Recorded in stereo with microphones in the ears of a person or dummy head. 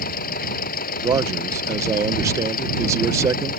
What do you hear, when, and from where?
0.0 s a machine running: 55° left (ahead or behind)
1.0 s a man speaking: 15° right (ahead or behind)